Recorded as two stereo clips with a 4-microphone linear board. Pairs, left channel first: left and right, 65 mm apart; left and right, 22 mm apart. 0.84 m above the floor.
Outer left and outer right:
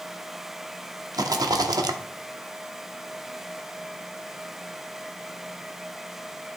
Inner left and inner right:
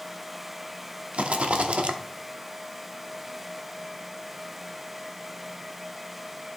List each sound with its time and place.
1.1 s a rattle: 80° right, 0.7 m